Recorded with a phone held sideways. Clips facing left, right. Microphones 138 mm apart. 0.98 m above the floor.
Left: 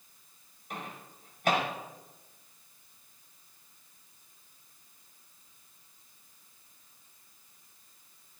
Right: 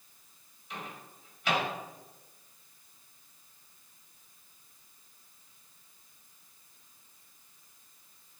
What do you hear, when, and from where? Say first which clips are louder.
0.7 s a microwave: left 1 dB; 50° left (ahead or behind), 5 m